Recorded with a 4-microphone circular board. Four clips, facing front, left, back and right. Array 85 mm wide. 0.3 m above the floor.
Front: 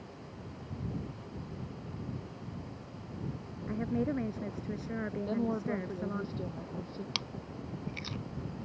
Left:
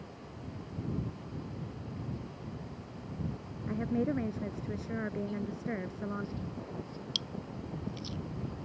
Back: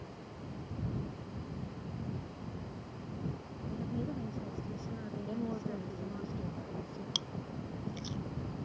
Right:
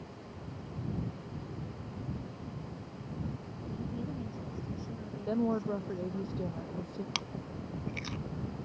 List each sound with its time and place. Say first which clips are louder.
3.7 s a woman speaking: left 8 dB, front 6 dB; 50° left
5.3 s a woman speaking: right 6 dB, front 5 dB; 60° right
7.2 s chewing: right 1 dB, even; 65° right